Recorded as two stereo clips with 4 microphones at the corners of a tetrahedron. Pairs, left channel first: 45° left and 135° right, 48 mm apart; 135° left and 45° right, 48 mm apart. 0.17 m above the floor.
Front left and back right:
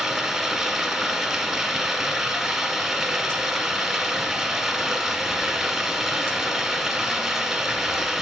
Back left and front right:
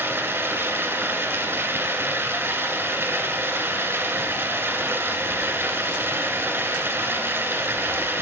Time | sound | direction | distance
0.0 | running water | 60° right | 1.6 m